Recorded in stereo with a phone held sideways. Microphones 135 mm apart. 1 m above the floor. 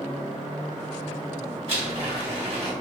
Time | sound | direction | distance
1.7 | a blender | 45° right (ahead or behind) | 1.2 m